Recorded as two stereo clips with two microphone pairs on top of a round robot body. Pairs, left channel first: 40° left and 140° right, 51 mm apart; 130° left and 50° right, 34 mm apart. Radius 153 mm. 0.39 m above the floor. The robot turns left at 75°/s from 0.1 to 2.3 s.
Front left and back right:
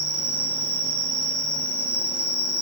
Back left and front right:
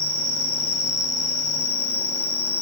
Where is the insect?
60° right, 3.5 m; by 2.6 s 135° left, 3.5 m.